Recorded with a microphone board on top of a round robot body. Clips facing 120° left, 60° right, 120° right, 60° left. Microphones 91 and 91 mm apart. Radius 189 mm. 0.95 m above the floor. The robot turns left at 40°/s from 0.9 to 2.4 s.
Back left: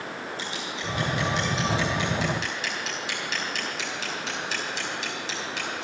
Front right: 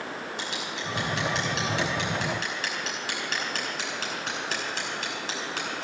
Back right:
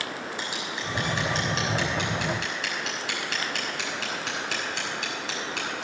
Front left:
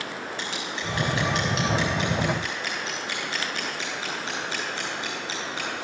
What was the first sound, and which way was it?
Scissors, 45° right.